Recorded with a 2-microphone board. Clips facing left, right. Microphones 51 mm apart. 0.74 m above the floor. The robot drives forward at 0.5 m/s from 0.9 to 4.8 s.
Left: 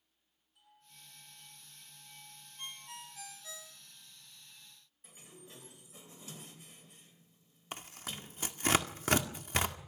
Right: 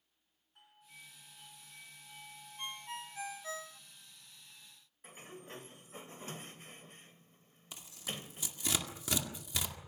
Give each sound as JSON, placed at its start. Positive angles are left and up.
{"t": 0.6, "sound": "a doorbell", "side_deg": -50, "distance_m": 9.5}
{"t": 2.6, "sound": "a ringtone", "side_deg": -25, "distance_m": 0.9}
{"t": 5.0, "sound": "a sliding door", "side_deg": -45, "distance_m": 2.5}
{"t": 7.7, "sound": "tearing paper", "side_deg": 50, "distance_m": 2.0}